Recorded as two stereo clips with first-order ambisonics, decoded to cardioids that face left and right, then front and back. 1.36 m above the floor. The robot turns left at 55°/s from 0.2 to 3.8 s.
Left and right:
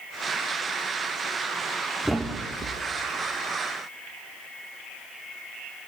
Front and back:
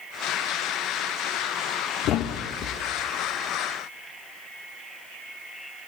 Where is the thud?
Straight ahead, 1.1 m; by 2.8 s 40° right, 1.1 m.